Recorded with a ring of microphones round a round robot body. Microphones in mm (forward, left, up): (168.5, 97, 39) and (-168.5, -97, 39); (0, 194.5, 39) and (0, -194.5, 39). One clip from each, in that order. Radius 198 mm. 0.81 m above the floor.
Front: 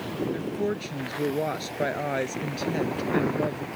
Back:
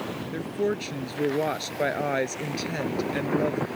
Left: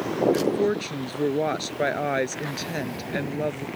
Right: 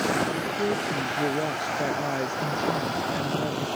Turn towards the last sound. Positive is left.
turn(degrees=135)